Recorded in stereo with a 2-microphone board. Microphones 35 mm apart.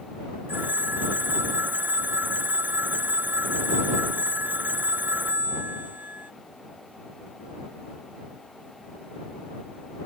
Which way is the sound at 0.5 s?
65° right (ahead or behind).